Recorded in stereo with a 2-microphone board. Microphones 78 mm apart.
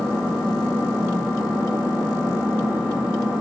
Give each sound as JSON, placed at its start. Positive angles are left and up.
{"t": 0.0, "sound": "an engine running", "side_deg": -20, "distance_m": 4.0}